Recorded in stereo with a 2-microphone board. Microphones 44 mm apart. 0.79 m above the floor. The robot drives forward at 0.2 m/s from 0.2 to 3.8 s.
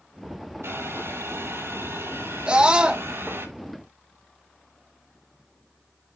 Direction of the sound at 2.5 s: 25° right (ahead or behind).